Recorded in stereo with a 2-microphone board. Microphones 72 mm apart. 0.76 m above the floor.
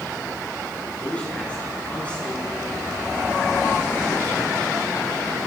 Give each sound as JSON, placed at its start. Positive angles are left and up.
{"t": 1.0, "sound": "a man speaking", "side_deg": 15, "distance_m": 9.5}